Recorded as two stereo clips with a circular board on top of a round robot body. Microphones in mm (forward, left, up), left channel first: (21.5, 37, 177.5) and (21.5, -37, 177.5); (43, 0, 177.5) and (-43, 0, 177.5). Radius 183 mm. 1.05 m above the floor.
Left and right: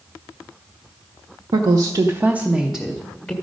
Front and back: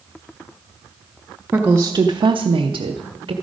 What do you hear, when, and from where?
1.5 s a woman speaking: 105° right, 0.6 m; by 3.3 s 160° left, 0.9 m